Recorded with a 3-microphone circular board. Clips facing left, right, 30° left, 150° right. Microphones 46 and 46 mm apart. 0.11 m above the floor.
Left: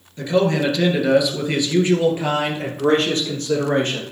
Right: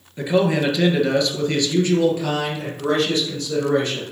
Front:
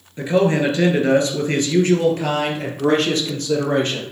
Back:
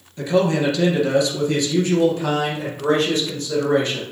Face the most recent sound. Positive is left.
turn(degrees=60)